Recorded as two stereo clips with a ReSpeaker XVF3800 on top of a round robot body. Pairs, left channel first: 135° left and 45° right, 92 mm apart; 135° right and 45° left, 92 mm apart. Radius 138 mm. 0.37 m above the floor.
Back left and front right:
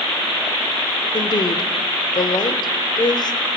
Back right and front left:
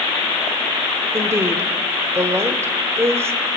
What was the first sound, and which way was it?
A woman speaking, 105° left.